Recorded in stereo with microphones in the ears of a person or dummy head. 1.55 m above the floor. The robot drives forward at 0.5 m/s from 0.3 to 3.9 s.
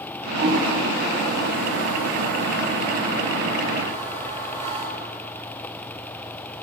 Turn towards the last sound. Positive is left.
turn(degrees=-35)  # may be behind; listen again after turning